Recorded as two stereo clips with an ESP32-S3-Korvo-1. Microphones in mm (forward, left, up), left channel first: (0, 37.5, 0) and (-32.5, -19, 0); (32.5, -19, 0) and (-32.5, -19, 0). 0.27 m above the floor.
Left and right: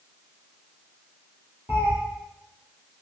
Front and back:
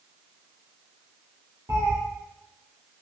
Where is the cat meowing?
170° right, 1.8 m.